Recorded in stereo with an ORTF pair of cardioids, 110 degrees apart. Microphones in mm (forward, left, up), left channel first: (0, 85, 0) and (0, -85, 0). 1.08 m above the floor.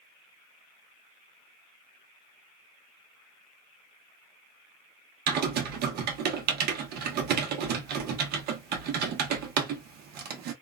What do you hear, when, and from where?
5.3 s typing on a keyboard: 70° right, 0.8 m